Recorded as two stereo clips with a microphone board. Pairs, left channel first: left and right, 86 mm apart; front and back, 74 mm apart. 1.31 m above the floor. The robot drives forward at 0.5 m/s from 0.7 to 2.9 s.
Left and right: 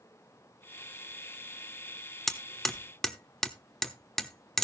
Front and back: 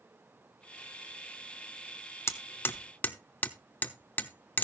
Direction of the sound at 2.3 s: 5° left.